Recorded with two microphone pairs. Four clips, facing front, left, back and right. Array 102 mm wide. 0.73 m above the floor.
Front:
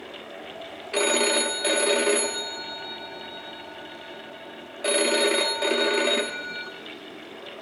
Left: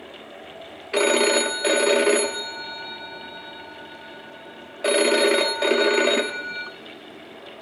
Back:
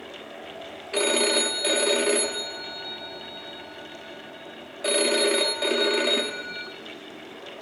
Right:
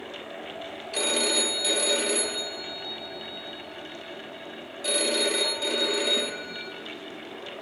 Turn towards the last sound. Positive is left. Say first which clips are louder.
# left 9 dB, even
turn(degrees=80)